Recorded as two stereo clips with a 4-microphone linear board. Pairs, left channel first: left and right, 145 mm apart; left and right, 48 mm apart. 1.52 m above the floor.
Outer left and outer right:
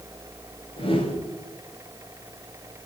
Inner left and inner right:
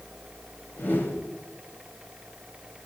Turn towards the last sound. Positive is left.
turn(degrees=40)  # may be behind; listen again after turning